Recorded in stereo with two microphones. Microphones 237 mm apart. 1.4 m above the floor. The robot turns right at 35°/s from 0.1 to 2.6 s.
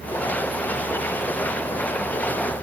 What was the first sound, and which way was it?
Only background noise.